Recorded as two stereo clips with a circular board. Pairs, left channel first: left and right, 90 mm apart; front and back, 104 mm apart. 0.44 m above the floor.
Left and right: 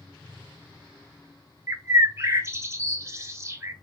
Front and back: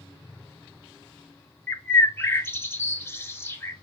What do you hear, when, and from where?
1.7 s a bird: 50° right, 0.5 m